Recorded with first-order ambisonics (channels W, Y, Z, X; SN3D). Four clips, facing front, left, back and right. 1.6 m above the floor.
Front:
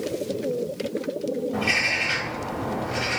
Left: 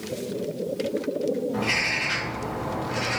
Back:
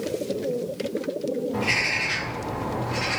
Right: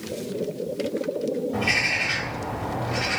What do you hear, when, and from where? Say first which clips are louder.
1.5 s a bird: right 5 dB, front 2 dB; 45° right, 1.8 m